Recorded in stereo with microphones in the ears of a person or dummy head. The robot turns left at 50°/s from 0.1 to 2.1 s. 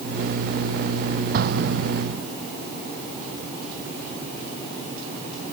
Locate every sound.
1.3 s an explosion: 50° right (ahead or behind); by 2.3 s 85° right